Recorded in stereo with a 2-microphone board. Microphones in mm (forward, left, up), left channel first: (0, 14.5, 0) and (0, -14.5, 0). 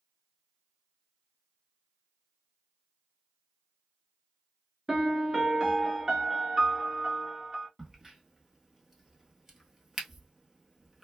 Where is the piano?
20° right (ahead or behind), 1.0 m.